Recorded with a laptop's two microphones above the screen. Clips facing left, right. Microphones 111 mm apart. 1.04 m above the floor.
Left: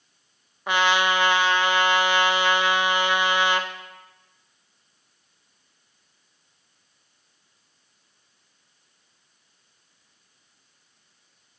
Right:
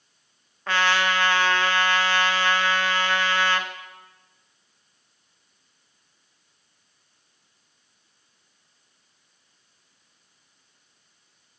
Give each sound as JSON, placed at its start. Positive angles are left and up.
{"t": 0.7, "sound": "a trumpet", "side_deg": 15, "distance_m": 0.6}